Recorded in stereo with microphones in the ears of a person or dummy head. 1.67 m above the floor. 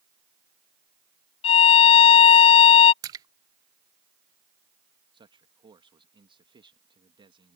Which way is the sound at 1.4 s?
30° left (ahead or behind).